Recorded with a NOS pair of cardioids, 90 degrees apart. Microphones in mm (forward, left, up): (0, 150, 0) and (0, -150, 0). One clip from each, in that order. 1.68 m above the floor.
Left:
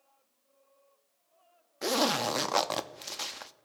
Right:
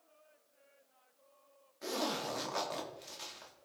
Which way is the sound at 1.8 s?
60° left.